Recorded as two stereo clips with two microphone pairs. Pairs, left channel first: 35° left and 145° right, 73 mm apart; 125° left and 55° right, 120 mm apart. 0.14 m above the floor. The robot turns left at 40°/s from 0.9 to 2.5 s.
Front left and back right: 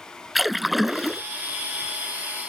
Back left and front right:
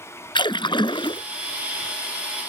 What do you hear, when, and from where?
0.3 s a splash: 130° left; by 1.2 s 115° left